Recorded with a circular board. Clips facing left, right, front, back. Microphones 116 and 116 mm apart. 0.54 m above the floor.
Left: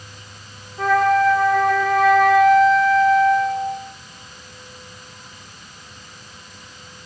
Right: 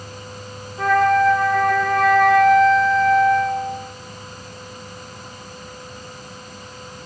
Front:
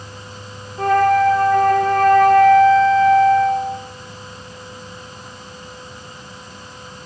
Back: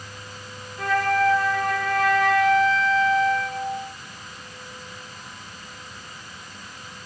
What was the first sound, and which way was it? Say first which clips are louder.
A flute: even, front 8 dB; 5° left.